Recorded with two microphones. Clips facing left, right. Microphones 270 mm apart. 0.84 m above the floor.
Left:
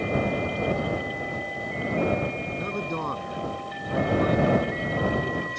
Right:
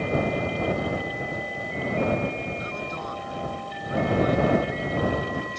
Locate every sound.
2.5 s a man speaking: 60° left (ahead or behind)